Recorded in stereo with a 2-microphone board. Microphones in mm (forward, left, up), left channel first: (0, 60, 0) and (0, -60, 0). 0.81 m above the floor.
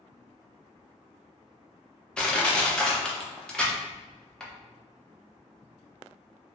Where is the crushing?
5° left (ahead or behind), 0.5 m.